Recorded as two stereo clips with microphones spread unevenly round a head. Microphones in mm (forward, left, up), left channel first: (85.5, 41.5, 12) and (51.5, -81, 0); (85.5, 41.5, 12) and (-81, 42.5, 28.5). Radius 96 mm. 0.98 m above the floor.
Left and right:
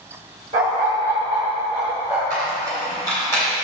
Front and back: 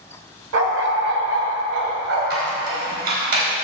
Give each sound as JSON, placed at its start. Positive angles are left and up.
{"t": 0.5, "sound": "a dog barking", "azimuth_deg": -175, "distance_m": 1.4}
{"t": 2.3, "sound": "a squeak", "azimuth_deg": 150, "distance_m": 4.0}